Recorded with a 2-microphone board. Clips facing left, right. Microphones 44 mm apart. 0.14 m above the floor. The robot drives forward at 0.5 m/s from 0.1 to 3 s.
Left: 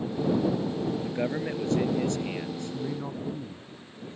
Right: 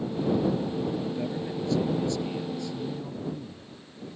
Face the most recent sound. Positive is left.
turn(degrees=50)  # may be behind; listen again after turning